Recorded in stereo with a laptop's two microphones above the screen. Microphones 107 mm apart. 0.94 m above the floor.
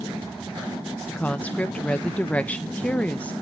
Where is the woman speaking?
15° left (ahead or behind), 0.7 m.